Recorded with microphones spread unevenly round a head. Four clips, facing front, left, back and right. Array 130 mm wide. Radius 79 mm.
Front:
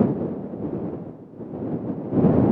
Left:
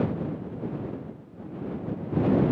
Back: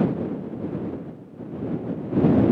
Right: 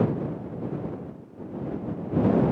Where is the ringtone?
No ringtone in this recording.